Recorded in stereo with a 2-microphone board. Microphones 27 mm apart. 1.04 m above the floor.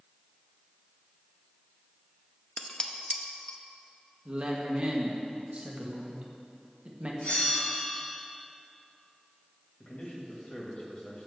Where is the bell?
75° left (ahead or behind), 3 m.